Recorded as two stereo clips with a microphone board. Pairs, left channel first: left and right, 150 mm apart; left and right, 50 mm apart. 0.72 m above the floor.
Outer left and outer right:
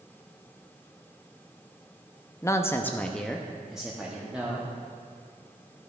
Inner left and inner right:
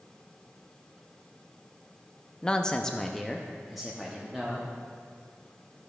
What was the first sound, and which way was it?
A man speaking, 20° left (ahead or behind).